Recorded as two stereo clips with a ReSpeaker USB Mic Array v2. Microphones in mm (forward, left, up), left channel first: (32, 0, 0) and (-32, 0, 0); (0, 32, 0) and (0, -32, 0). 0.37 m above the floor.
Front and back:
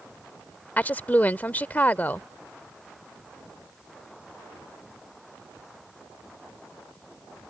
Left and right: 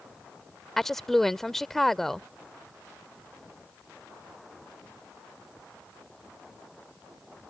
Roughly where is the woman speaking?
Ahead.